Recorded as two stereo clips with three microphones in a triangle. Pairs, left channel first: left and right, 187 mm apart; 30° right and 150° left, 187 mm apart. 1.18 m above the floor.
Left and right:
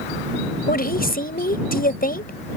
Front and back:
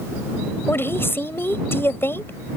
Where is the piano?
I don't hear a piano.